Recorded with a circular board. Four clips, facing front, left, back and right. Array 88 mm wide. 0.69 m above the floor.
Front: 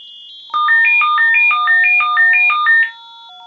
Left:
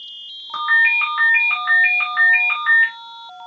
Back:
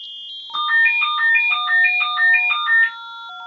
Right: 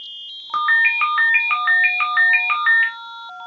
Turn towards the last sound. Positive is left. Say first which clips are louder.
# even, front 6 dB
turn(degrees=-25)